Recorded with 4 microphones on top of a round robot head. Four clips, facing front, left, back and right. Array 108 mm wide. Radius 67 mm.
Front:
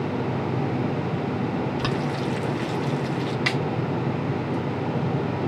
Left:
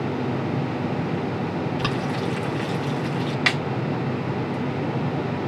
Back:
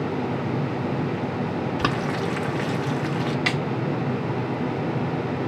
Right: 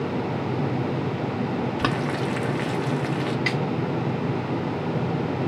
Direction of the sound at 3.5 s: 75° left.